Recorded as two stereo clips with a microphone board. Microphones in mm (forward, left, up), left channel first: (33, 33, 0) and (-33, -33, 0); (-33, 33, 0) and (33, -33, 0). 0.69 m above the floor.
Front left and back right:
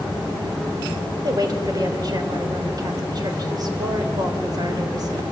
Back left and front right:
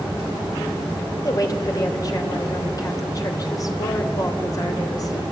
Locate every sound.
1.2 s a woman speaking: straight behind, 3 m